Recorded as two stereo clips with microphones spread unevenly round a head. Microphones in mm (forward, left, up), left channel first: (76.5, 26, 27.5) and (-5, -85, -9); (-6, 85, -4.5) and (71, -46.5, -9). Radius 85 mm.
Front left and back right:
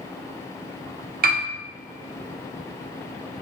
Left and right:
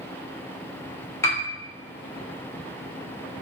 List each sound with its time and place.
1.2 s a piano: 165° right, 0.6 m